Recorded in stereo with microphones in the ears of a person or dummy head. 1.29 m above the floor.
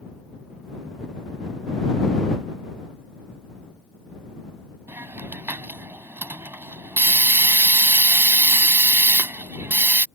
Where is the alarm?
I don't hear an alarm.